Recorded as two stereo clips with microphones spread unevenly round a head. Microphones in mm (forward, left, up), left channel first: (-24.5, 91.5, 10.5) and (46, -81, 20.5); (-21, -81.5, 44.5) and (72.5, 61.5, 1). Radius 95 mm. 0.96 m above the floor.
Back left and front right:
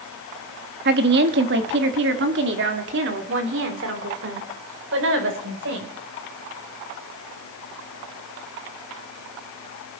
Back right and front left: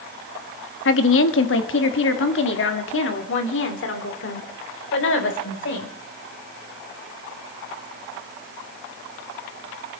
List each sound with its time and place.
0.8 s a woman speaking: 105° right, 1.5 m; by 5.9 s 100° right, 4.5 m